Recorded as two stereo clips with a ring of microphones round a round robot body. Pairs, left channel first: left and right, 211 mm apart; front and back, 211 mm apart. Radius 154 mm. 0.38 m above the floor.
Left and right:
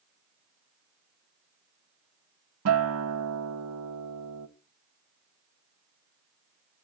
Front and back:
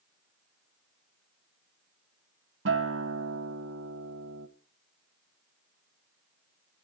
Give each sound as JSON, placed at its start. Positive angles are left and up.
{"t": 2.6, "sound": "a guitar", "azimuth_deg": -130, "distance_m": 0.6}